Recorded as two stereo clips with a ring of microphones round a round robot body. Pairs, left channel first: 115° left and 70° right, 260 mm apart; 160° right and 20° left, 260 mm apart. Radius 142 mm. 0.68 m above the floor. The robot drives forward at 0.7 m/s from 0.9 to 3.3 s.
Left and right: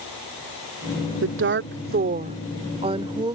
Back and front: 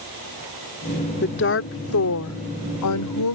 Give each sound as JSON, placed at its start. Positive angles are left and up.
{"t": 1.2, "sound": "a woman speaking", "azimuth_deg": -110}